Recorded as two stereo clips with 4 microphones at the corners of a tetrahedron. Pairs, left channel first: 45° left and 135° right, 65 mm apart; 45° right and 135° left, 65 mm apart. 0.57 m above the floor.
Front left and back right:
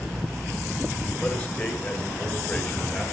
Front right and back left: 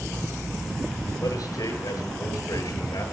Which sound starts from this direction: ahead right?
A man speaking, at 1.2 s.